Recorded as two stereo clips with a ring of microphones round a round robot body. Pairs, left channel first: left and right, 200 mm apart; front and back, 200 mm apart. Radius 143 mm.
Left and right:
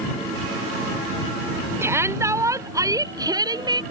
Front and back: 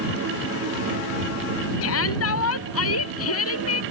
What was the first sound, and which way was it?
A shout, 10° right.